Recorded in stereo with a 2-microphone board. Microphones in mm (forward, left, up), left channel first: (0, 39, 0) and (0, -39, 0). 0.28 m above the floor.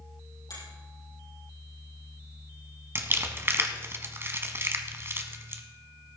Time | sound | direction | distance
0.5 | a finger snap | 60° left (ahead or behind) | 6.5 m
3.0 | crumpling | 30° right (ahead or behind) | 1.1 m